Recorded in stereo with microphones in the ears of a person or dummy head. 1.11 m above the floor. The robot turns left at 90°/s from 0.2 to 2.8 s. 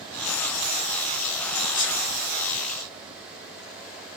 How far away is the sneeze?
About 3 m.